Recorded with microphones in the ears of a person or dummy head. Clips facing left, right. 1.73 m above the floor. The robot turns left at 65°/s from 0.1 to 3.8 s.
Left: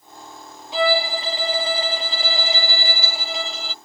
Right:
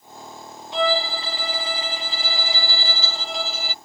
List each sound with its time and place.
0.7 s a violin: centre (ahead or behind); by 3.7 s 10° right (ahead or behind)